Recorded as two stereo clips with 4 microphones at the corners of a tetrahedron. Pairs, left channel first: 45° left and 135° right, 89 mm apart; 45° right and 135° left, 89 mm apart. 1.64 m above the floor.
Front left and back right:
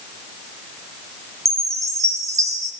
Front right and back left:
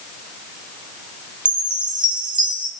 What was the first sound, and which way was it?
A chime, 170° left.